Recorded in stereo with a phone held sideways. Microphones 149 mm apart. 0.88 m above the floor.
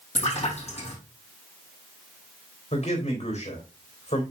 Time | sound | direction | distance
0.1 | a splash | 50° left (ahead or behind) | 5 m
2.7 | a man speaking | 50° left (ahead or behind) | 3 m